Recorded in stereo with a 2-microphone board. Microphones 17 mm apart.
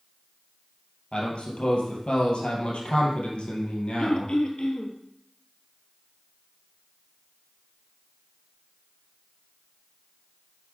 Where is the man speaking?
65° left (ahead or behind), 2.5 m.